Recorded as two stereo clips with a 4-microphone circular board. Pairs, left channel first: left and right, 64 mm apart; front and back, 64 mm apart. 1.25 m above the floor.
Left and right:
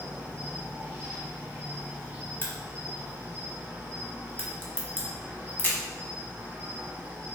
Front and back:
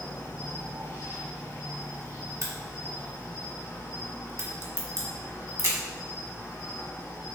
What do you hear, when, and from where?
0.0 s an insect: 35° right, 2 m
2.4 s a crack: 145° left, 1.0 m